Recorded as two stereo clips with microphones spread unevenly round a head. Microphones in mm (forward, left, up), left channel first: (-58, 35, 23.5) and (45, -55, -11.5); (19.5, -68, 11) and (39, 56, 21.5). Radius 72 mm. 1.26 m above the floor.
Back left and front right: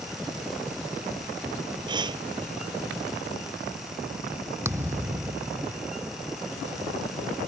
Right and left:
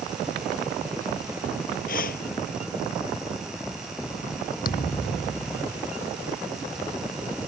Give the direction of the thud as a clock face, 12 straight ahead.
4 o'clock.